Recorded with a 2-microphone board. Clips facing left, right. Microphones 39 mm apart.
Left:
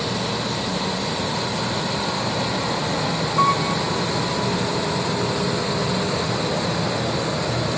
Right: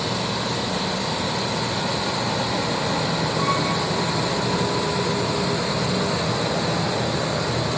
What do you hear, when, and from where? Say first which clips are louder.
3.4 s a piano: left 6 dB; 75° left (ahead or behind), 7 m